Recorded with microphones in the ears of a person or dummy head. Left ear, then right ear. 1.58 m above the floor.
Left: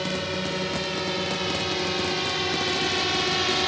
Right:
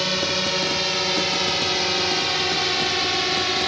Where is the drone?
30° right (ahead or behind); by 3.7 s 5° right (ahead or behind).